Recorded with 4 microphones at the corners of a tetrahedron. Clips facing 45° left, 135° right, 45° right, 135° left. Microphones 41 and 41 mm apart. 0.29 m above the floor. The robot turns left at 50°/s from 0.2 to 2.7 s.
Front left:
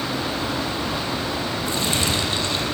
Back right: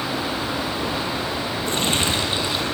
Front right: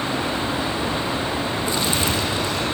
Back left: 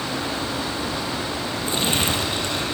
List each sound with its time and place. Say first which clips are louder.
1.7 s crumpling: back right 2 dB, back left 2 dB; 170° right, 5 m; by 2.6 s 140° left, 5 m